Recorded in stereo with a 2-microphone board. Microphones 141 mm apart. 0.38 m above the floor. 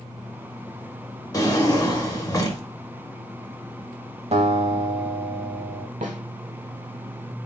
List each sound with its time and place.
1.3 s a drawer: 25° left (ahead or behind), 0.7 m
4.3 s a guitar: 55° right (ahead or behind), 0.6 m
6.0 s a snare drum: 75° right (ahead or behind), 0.7 m